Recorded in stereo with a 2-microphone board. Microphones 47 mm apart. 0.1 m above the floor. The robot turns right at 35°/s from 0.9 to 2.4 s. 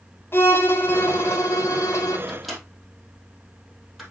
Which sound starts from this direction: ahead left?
A violin, at 0.3 s.